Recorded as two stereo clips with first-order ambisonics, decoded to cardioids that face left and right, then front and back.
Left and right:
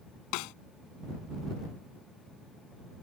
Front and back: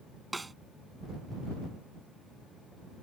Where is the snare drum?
100° left.